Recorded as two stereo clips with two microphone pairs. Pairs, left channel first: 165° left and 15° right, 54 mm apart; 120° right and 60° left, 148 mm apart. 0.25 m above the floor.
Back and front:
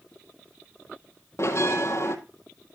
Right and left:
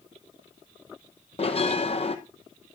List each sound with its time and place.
1.4 s a bell: 165° right, 1.5 m